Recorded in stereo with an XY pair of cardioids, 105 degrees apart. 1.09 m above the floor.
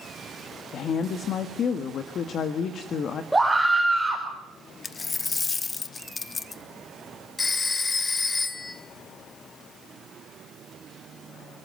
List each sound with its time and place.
0.7 s a woman speaking: 60° left, 1.6 m
3.3 s a scream: 5° right, 4.5 m
4.8 s a dropped coin: 30° left, 1.1 m
7.4 s a phone ringing: 30° left, 2.5 m